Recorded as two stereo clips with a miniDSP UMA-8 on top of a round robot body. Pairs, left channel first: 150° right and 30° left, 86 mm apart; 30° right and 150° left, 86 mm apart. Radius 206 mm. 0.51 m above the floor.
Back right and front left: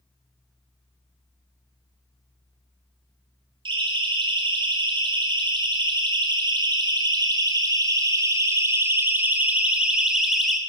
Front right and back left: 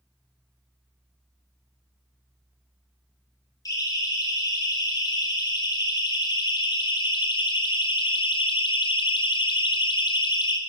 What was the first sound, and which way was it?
A siren, 15° left.